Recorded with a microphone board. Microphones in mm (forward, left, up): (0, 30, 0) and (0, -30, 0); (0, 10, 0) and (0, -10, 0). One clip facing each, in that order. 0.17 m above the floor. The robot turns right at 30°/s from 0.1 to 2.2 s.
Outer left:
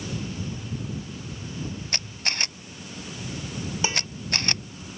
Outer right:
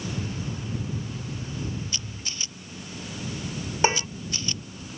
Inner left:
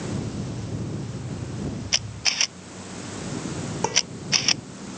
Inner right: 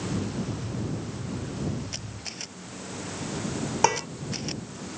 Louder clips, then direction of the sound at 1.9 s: Outer left 6 dB, inner left 13 dB; 60° left (ahead or behind).